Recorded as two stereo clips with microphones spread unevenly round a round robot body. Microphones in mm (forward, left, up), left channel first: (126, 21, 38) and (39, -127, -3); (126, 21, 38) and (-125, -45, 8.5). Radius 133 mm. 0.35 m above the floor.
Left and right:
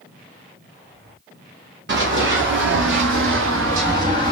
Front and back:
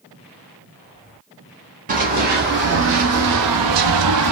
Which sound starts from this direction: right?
Running footsteps, at 1.9 s.